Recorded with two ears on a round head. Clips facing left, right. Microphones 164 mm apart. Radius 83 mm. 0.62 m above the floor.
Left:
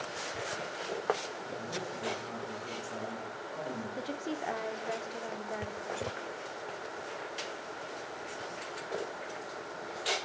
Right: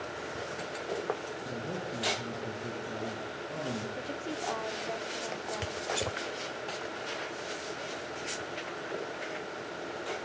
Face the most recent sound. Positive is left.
turn(degrees=15)  # may be behind; listen again after turning